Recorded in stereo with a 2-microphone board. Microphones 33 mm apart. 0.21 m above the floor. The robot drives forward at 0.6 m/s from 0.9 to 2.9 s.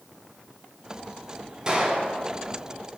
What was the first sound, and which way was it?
A gunshot, 20° right (ahead or behind).